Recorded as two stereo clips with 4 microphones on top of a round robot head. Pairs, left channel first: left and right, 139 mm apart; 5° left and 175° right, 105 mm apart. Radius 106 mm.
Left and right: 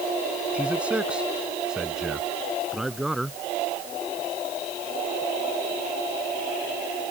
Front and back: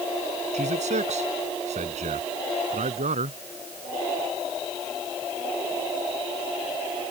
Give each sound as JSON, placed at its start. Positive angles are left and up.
{"t": 0.5, "sound": "a man speaking", "azimuth_deg": -170}